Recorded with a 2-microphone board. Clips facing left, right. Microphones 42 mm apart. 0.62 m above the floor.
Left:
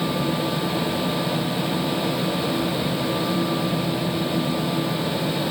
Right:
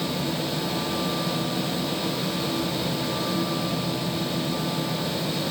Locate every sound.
Only background noise.